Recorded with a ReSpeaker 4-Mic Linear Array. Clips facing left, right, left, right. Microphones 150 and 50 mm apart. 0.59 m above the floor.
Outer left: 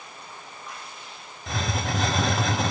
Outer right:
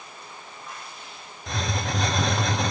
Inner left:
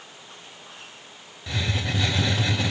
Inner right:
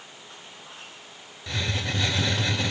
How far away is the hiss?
About 0.5 m.